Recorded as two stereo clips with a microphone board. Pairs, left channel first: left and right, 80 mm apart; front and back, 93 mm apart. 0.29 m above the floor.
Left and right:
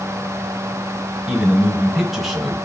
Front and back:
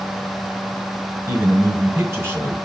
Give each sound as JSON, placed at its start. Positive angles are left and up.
{"t": 1.3, "sound": "a man speaking", "azimuth_deg": -175, "distance_m": 1.1}